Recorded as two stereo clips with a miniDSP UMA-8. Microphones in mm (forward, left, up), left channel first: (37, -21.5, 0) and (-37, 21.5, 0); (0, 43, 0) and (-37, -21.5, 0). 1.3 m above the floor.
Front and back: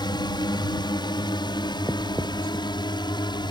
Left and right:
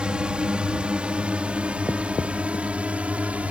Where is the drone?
45° right; by 3.5 s 50° right.